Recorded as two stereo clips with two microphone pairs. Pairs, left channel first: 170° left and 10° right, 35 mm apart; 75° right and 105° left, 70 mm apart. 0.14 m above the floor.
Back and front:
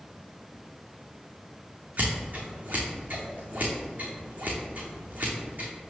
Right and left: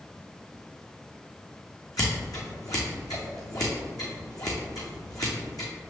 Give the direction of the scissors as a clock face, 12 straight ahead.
2 o'clock.